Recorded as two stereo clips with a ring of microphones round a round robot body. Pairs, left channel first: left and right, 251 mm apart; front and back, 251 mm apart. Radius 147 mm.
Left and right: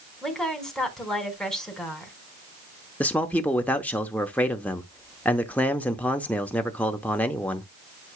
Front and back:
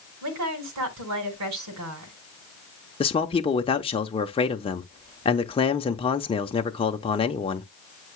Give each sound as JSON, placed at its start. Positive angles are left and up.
{"t": 0.2, "sound": "a woman speaking", "azimuth_deg": 180, "distance_m": 4.0}
{"t": 3.0, "sound": "a man speaking", "azimuth_deg": 15, "distance_m": 0.8}